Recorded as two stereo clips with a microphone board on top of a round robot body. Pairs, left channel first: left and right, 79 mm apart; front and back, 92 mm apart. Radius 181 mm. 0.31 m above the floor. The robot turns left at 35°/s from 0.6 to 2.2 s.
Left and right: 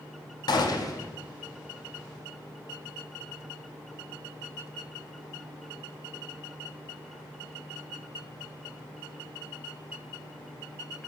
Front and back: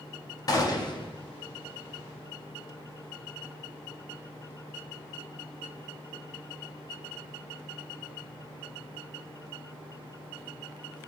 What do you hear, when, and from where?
0.5 s a gunshot: 50° left, 0.6 m; by 1.1 s 35° left, 0.6 m